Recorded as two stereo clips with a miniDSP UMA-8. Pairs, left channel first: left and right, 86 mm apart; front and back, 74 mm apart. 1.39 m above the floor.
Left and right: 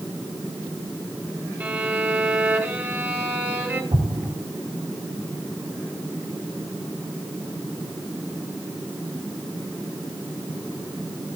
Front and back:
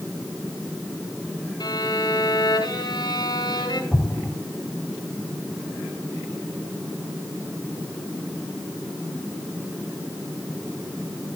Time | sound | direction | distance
1.6 | a violin | 20° right | 3 m
3.9 | an explosion | 85° right | 2.5 m